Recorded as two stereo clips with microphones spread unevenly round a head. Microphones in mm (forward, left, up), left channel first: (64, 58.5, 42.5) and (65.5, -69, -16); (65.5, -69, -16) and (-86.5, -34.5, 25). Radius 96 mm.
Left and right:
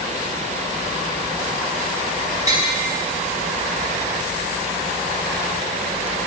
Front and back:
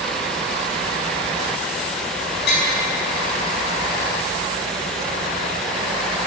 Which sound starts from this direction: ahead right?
Tapping, at 2.5 s.